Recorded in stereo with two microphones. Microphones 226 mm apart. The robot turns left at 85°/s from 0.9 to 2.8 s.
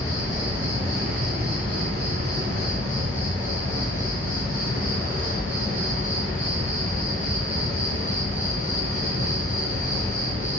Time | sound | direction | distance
0.0 | an insect | 165° right | 1.4 m